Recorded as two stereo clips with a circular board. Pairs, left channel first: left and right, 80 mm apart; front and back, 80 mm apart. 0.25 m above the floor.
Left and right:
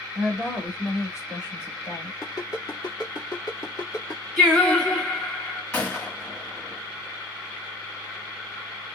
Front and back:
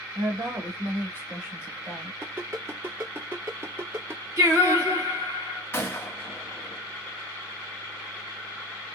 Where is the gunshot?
35° left, 1.0 m.